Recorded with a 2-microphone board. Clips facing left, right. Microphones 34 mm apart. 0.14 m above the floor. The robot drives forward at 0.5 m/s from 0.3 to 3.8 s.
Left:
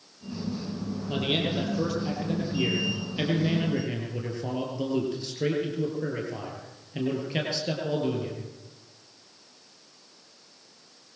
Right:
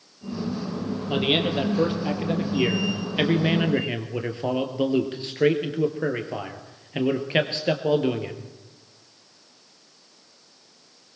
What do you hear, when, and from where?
1.1 s a man speaking: 30° right (ahead or behind), 4.5 m; by 8.4 s 40° right (ahead or behind), 3.5 m